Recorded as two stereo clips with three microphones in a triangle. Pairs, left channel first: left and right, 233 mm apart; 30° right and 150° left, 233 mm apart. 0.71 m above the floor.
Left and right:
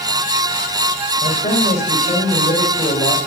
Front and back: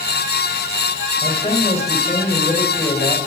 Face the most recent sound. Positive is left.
turn(degrees=30)